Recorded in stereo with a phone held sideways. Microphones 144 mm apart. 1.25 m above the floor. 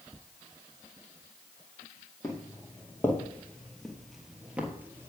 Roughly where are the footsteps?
Left.